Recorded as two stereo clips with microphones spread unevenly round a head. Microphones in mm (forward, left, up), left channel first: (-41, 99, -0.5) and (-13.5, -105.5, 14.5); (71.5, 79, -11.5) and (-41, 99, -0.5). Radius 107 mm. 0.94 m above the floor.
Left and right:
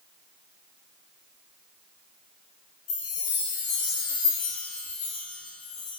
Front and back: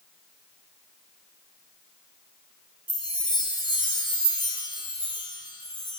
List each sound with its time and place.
2.9 s a chime: 40° left, 3 m